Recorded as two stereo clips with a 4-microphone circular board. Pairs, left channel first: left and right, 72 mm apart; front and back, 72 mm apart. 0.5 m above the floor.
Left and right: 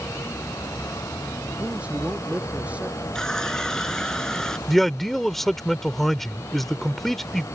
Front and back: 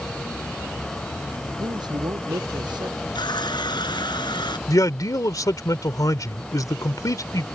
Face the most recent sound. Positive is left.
turn(degrees=5)